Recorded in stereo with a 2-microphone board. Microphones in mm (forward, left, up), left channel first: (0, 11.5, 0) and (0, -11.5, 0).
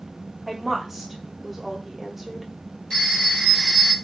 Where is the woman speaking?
10° right (ahead or behind), 0.7 m.